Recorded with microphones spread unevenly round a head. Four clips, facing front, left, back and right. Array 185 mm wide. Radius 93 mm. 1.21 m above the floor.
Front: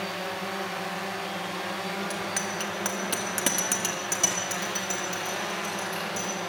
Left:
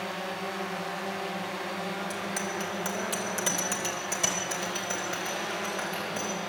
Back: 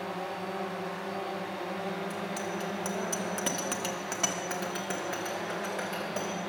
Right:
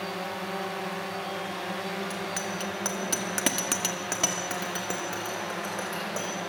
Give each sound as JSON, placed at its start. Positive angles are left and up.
{"t": 2.1, "sound": "a bicycle bell", "azimuth_deg": -15, "distance_m": 2.5}